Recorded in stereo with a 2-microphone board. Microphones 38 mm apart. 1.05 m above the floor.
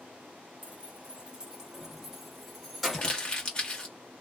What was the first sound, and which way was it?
Keys jangling, 45° right (ahead or behind).